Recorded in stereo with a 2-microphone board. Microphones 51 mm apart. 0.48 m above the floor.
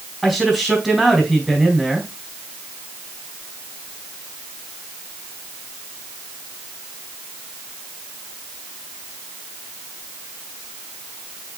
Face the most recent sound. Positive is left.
turn(degrees=-10)  # may be behind; listen again after turning